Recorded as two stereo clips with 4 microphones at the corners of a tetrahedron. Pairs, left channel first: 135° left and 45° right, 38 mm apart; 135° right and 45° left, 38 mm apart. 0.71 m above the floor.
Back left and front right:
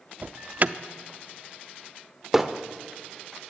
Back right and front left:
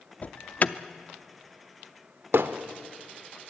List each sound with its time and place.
0.2 s an alarm: 90° right, 0.6 m
2.3 s hammering: 35° left, 0.7 m